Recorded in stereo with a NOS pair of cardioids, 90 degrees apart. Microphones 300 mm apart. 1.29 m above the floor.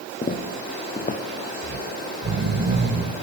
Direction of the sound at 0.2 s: 25° left.